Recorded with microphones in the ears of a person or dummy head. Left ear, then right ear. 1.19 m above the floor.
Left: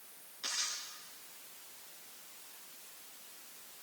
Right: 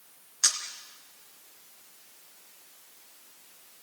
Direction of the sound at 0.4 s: 65° right (ahead or behind).